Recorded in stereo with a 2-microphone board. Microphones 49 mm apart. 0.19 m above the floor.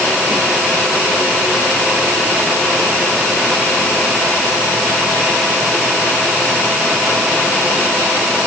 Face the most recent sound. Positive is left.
No sound to turn to.